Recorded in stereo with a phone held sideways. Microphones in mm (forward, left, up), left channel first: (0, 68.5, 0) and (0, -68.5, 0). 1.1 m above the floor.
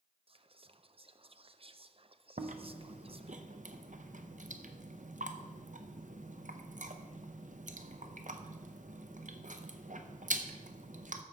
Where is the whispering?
45° right (ahead or behind), 0.5 m.